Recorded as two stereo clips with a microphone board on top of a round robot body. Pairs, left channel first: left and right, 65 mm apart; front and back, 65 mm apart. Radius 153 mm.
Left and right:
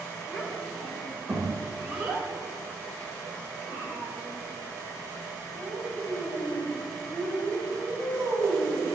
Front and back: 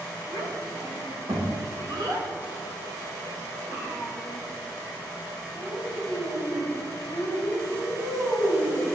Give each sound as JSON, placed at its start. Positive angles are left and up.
{"t": 0.3, "sound": "a child speaking", "azimuth_deg": 180, "distance_m": 3.0}